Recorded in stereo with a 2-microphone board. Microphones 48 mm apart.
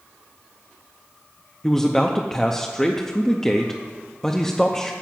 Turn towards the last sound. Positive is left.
turn(degrees=10)  # may be behind; listen again after turning